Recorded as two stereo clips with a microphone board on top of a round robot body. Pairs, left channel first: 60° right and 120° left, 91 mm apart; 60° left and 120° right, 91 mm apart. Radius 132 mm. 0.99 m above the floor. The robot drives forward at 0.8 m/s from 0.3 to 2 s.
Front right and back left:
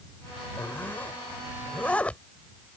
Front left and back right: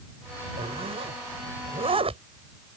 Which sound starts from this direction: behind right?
A zipper, at 0.6 s.